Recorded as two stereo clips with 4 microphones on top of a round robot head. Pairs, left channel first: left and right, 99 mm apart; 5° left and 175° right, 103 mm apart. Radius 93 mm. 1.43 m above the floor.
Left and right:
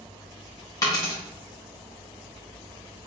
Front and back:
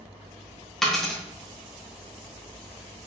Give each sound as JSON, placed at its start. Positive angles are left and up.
{"t": 0.8, "sound": "a dropped coin", "azimuth_deg": 90, "distance_m": 0.8}